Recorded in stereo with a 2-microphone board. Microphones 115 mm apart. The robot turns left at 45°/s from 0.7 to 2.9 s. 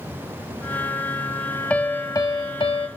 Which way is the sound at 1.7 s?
165° left.